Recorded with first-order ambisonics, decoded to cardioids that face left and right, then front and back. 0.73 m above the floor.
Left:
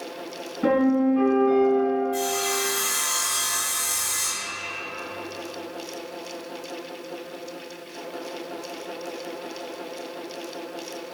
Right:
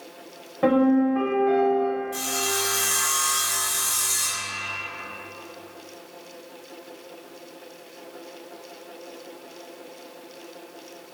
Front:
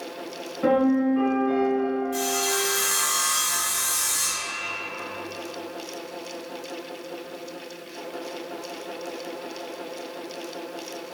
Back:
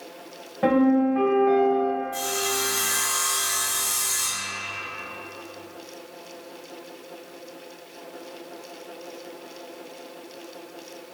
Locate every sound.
0.6 s a piano: 125° right, 1.2 m
2.1 s sawing: 65° right, 1.1 m